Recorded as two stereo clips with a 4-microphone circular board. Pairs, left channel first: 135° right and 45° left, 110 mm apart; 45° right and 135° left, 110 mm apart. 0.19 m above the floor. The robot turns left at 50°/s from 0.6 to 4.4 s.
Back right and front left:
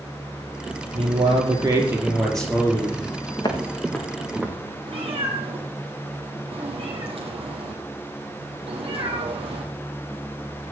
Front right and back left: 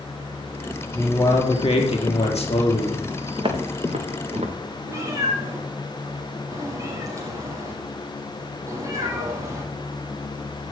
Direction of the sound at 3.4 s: Straight behind.